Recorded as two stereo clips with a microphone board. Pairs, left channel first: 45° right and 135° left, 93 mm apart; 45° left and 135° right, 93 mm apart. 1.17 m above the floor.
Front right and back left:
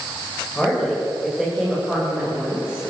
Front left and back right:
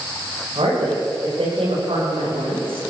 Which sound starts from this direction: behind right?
A woman speaking, at 0.6 s.